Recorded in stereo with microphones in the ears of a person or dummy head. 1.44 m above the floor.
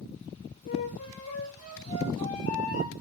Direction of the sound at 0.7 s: 40° left (ahead or behind).